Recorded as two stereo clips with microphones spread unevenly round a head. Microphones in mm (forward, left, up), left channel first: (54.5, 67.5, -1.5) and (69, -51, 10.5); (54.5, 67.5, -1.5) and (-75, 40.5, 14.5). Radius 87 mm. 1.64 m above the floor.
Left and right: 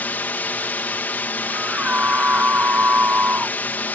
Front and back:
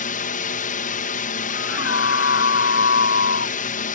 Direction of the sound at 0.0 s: 20° left.